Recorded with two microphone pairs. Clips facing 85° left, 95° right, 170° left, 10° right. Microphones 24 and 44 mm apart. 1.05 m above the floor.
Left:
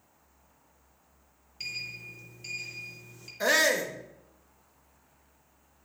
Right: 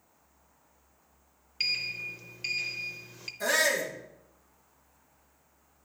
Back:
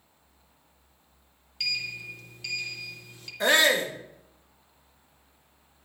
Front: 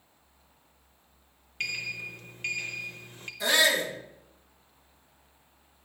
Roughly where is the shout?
Behind left.